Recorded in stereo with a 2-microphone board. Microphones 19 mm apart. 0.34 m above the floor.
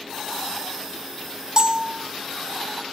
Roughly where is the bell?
Right.